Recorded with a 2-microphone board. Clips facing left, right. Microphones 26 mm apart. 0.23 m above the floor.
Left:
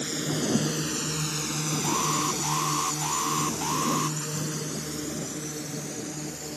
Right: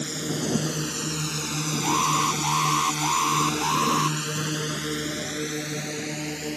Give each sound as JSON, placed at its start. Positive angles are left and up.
{"t": 0.0, "sound": "a drone", "side_deg": 0}
{"t": 1.8, "sound": "an alarm", "side_deg": -25}